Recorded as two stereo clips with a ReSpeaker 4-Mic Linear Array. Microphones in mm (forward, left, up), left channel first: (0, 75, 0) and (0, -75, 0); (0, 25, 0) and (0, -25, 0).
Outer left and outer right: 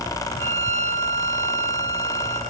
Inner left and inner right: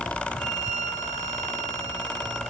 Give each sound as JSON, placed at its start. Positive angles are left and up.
{"t": 0.4, "sound": "a violin", "side_deg": 15, "distance_m": 9.5}